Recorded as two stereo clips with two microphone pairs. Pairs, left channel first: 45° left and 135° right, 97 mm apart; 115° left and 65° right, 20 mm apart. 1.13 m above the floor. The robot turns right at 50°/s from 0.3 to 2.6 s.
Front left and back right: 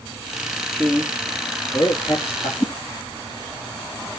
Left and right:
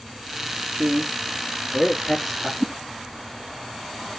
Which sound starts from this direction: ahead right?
A man speaking, at 0.7 s.